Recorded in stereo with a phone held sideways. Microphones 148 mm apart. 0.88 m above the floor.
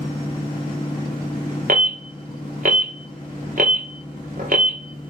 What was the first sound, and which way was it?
A machine running, 35° left (ahead or behind).